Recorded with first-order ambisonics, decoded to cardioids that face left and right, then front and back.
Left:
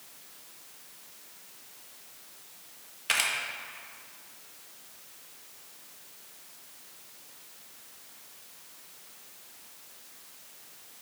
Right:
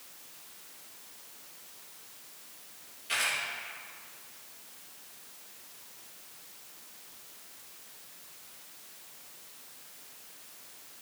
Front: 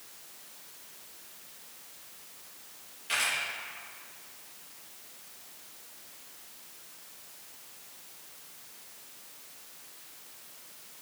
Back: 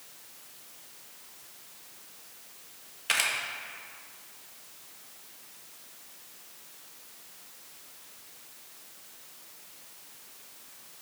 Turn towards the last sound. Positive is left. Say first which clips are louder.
# left 3 dB, back 2 dB
turn(degrees=130)